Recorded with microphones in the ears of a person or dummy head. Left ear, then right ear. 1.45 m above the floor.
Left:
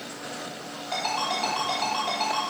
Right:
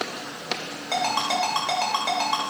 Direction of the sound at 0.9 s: 45° right (ahead or behind).